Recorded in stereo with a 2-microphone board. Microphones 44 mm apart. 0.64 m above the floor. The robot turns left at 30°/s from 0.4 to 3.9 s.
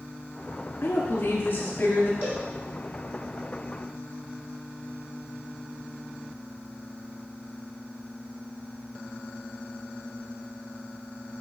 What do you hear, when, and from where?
0.8 s a woman speaking: 110° left, 1.0 m; by 2.1 s 75° left, 1.0 m
2.2 s a cowbell: 40° right (ahead or behind), 3.5 m; by 2.4 s 30° right (ahead or behind), 3.5 m